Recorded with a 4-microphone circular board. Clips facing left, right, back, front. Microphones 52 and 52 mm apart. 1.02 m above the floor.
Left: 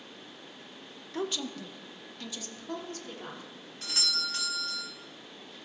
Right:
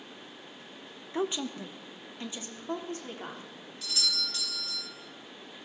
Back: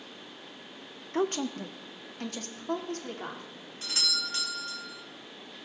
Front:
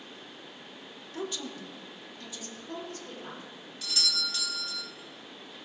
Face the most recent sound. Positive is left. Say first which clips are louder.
# even, even
turn(degrees=130)